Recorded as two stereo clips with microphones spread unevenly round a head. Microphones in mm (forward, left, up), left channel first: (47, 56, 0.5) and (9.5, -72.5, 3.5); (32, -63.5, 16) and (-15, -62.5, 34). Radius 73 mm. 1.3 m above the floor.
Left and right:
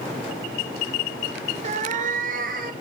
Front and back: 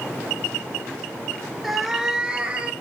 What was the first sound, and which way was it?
A cat meowing, 115° right.